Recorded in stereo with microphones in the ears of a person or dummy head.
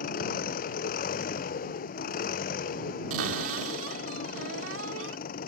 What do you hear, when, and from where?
0.0 s an engine running: 50° left (ahead or behind)
3.1 s a cupboard door: 75° right (ahead or behind)